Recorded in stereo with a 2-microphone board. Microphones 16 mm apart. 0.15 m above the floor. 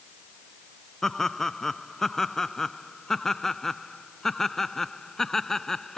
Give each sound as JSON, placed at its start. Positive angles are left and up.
{"t": 1.0, "sound": "laughter", "side_deg": 30}